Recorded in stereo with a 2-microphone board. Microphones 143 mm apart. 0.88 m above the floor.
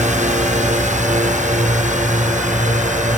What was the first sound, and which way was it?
A drone, 60° right (ahead or behind).